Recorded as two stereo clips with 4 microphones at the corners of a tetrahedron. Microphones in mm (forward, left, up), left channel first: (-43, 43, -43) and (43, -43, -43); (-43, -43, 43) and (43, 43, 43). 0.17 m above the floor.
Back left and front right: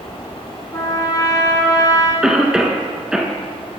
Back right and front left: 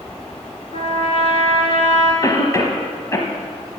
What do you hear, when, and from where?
0.7 s a trumpet: 165° right, 2.5 m
2.2 s a cough: 120° right, 1.1 m